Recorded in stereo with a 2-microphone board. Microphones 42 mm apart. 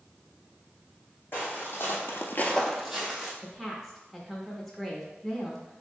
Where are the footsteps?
50° left (ahead or behind), 1.8 m; by 3.3 s 20° right (ahead or behind), 1.5 m.